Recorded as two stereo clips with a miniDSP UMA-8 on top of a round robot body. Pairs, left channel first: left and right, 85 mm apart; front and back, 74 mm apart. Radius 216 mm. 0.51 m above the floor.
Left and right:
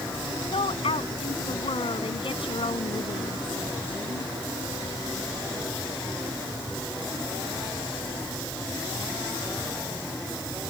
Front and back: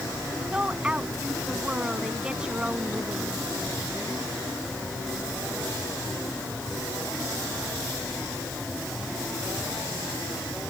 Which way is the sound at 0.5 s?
105° left.